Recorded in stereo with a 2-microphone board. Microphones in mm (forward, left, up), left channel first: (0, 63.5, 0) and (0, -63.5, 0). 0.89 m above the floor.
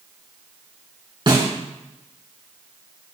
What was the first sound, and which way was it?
A snare drum, 40° right (ahead or behind).